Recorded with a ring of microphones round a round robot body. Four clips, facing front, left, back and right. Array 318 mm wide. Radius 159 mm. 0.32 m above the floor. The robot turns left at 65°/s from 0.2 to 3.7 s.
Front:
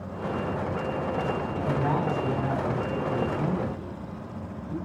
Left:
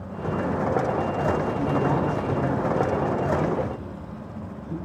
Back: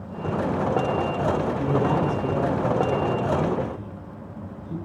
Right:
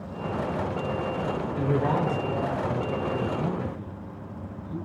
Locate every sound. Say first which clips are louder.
1.6 s a man speaking: left 2 dB, back 4 dB; 120° right, 7 m; by 4.8 s 100° left, 7 m